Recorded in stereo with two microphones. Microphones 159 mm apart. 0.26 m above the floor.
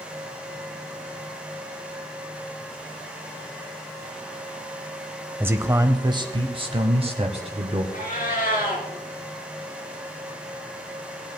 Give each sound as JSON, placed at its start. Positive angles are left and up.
{"t": 5.4, "sound": "a man speaking", "side_deg": -15, "distance_m": 0.9}
{"t": 7.9, "sound": "a cat meowing", "side_deg": 65, "distance_m": 2.5}